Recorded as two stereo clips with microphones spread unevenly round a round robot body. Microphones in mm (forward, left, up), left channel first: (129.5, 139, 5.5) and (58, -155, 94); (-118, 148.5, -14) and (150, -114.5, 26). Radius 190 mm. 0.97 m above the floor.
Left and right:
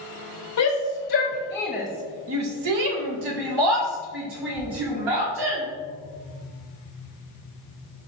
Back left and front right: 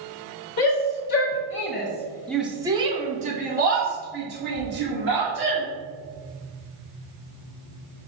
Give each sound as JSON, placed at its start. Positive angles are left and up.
{"t": 0.6, "sound": "a shout", "azimuth_deg": 95, "distance_m": 1.5}